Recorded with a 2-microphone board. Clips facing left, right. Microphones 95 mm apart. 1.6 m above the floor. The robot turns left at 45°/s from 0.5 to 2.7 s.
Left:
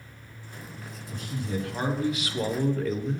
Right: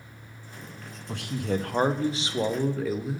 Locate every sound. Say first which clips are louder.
1.1 s a man speaking: right 4 dB; 105° right, 0.5 m; by 3.2 s 175° right, 0.5 m